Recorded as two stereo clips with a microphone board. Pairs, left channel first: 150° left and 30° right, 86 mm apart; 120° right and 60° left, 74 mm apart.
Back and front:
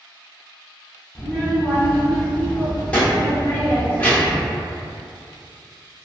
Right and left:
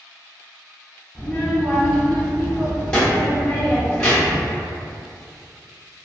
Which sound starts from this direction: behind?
A child speaking, at 1.1 s.